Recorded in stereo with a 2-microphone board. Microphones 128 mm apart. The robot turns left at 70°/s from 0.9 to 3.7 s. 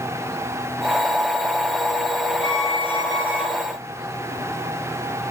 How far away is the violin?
About 4.5 m.